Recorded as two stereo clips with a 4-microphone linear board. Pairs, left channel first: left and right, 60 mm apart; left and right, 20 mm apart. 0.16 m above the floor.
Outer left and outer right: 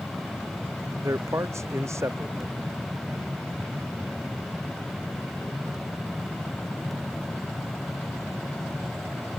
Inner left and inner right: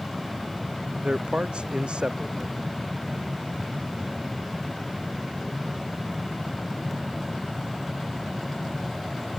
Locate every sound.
1.0 s a man speaking: 55° right (ahead or behind)